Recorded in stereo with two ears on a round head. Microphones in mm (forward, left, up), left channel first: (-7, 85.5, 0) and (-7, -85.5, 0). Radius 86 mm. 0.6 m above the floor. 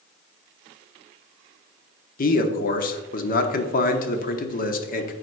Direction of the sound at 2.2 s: 45° left (ahead or behind).